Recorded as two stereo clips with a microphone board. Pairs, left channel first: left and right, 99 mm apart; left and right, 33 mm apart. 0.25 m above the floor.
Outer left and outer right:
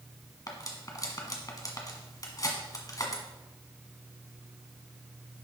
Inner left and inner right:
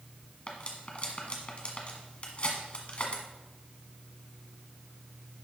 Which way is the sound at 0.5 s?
40° left (ahead or behind).